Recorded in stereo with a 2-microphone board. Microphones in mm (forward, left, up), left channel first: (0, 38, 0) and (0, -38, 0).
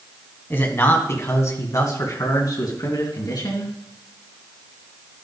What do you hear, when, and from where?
0.5 s a man speaking: 30° left (ahead or behind), 2.5 m; by 3.8 s 65° left (ahead or behind), 4 m